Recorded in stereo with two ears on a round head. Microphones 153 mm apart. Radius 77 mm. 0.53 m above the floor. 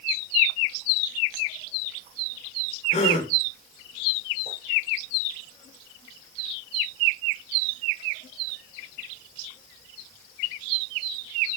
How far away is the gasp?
About 1.7 m.